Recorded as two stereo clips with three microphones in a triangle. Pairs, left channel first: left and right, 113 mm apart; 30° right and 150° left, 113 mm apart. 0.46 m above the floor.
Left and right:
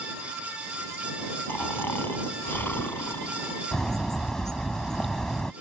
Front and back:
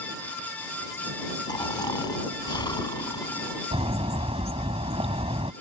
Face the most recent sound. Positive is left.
turn(degrees=175)